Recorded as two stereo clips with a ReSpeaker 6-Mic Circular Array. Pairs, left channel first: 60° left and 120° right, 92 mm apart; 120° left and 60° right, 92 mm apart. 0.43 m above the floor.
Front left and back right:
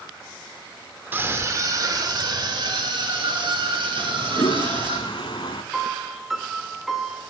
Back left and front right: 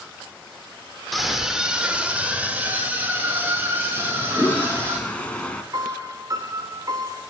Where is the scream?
150° right, 0.9 m; by 5.0 s 125° right, 3 m.